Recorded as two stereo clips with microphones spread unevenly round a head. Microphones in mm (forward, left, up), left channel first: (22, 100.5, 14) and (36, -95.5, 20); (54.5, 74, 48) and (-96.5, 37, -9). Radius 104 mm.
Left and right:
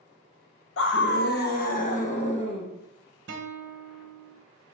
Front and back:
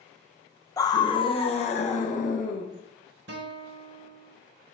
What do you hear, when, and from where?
0.8 s a scream: 75° left, 1.4 m; by 2.6 s 30° left, 1.8 m
3.3 s a guitar: 130° right, 1.0 m